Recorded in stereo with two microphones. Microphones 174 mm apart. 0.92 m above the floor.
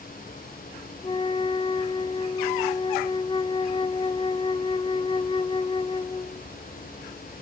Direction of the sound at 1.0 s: 30° left (ahead or behind).